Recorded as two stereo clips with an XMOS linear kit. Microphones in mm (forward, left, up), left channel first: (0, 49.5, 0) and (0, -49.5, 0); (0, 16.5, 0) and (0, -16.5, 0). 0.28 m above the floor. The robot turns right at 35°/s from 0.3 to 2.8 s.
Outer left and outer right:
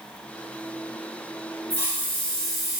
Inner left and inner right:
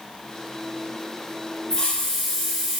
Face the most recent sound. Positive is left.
turn(degrees=-170)